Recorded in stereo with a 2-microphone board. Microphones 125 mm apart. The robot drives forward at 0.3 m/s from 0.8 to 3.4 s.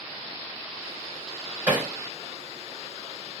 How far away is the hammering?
About 2 m.